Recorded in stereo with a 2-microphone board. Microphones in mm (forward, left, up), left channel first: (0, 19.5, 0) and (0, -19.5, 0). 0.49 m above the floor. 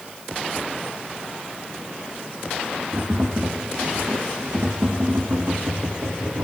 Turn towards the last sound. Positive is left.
turn(degrees=-60)  # may be behind; listen again after turning